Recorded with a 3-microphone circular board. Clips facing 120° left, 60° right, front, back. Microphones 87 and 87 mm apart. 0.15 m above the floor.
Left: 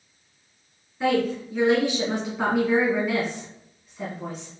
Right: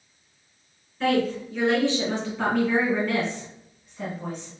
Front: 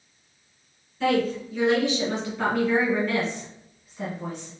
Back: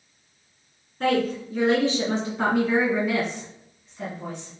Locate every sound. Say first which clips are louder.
1.0 s a woman speaking: even, even; 170° right, 2 m; by 4.5 s 35° left, 1.6 m